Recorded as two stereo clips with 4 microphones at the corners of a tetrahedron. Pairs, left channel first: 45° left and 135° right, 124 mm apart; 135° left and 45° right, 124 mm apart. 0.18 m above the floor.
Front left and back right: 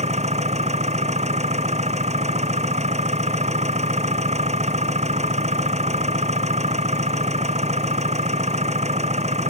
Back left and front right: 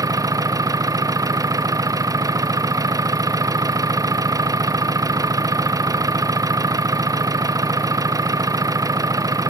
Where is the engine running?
110° right.